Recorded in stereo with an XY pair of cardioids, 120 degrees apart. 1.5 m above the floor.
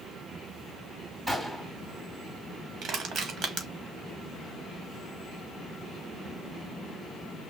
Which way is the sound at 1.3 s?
5° right.